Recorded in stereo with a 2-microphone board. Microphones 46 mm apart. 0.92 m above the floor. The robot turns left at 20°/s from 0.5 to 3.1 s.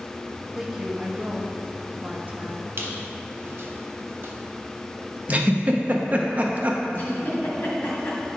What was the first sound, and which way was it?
A woman speaking, straight ahead.